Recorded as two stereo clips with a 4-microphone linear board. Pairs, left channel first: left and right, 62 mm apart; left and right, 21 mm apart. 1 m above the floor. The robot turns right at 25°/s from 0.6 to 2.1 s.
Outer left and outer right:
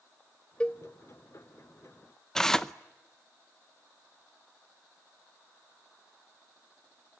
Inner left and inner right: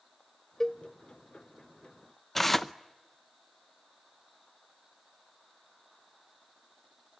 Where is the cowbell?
15° left (ahead or behind), 0.5 m; by 0.8 s 20° left (ahead or behind), 0.5 m.